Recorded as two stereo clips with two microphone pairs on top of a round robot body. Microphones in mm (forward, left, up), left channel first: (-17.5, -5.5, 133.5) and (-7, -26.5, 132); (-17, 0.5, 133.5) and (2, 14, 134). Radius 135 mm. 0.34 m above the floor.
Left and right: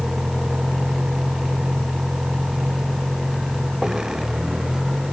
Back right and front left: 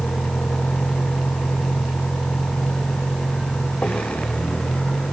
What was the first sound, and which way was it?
A vehicle, 125° right.